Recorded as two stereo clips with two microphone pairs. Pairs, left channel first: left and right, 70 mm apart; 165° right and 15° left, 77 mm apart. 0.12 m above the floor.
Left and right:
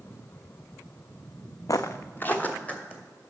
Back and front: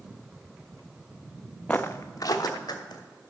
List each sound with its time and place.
1.7 s footsteps: 120° left, 0.5 m; by 3.0 s 160° left, 2 m